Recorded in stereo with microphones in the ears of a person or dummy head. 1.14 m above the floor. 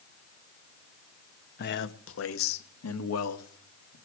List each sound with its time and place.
1.6 s a man speaking: 45° left (ahead or behind), 1.0 m; by 4.0 s 85° left, 2.5 m